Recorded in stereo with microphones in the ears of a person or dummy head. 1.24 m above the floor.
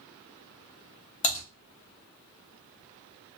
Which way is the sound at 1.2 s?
30° left (ahead or behind).